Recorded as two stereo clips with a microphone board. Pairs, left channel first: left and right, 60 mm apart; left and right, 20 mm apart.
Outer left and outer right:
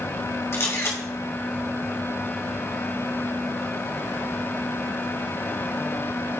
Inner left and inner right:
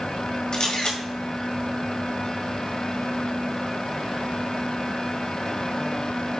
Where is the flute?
I don't hear a flute.